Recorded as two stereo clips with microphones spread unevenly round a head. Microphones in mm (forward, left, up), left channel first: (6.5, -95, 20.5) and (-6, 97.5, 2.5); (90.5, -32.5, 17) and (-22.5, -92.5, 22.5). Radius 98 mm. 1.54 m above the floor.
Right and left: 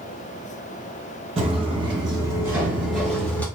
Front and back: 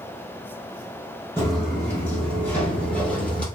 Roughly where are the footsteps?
Left.